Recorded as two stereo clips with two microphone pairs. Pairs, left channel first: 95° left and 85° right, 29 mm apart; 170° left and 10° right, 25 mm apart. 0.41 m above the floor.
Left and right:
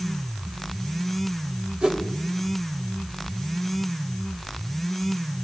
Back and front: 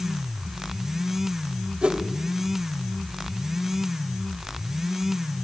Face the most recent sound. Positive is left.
turn(degrees=-40)